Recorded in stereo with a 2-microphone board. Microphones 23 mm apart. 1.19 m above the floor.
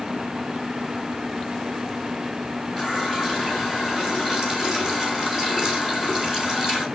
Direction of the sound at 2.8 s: 15° right (ahead or behind).